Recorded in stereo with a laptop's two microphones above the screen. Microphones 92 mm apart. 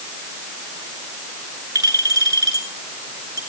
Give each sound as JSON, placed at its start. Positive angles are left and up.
{"t": 1.8, "sound": "a clink", "side_deg": -40, "distance_m": 7.5}